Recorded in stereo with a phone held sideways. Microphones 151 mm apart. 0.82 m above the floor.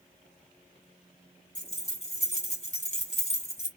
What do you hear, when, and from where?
1.6 s keys jangling: 50° left (ahead or behind), 0.9 m